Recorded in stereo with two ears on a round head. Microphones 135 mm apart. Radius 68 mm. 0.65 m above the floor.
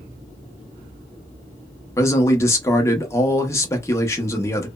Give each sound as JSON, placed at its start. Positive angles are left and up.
{"t": 2.0, "sound": "a man speaking", "side_deg": 20, "distance_m": 0.6}